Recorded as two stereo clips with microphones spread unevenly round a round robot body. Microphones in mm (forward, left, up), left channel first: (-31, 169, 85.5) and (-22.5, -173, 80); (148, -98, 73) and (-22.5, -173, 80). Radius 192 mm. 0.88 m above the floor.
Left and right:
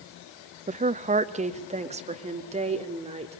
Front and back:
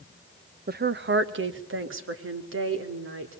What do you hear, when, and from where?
0.7 s a woman speaking: 150° right, 1.0 m; by 3.4 s 160° right, 3.5 m